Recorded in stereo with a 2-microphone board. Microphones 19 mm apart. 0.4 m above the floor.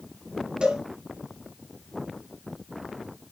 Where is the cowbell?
55° right (ahead or behind), 3.5 m.